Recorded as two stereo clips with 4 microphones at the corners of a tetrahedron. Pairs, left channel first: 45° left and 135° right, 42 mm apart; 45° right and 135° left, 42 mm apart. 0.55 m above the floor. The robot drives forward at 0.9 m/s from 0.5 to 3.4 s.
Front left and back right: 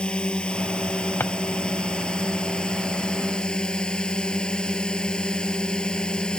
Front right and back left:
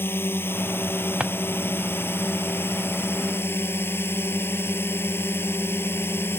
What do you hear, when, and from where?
0.0 s a drone: 20° right; by 6.4 s 25° right
1.2 s a drawer: 70° left; by 1.3 s 75° left